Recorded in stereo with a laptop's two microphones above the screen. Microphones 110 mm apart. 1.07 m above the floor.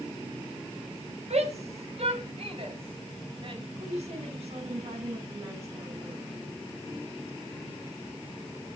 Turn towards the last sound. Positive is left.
turn(degrees=-70)  # may be behind; listen again after turning